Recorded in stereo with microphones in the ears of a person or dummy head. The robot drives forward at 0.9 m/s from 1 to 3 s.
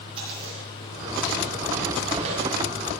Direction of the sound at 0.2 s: 30° right (ahead or behind).